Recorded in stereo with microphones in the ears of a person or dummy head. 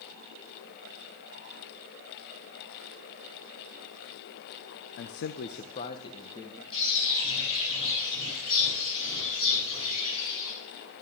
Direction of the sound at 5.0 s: 55° left (ahead or behind).